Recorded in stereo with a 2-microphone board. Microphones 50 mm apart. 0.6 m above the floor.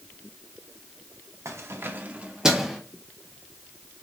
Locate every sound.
1.4 s keys jangling: 60° right (ahead or behind), 0.5 m; by 2.8 s centre (ahead or behind), 0.7 m